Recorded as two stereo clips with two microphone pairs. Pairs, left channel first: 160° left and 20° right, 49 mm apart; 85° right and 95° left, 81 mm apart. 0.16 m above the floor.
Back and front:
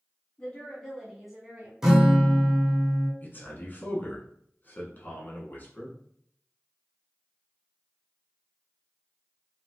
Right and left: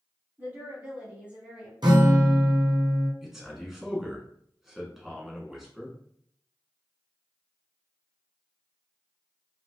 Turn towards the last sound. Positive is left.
turn(degrees=180)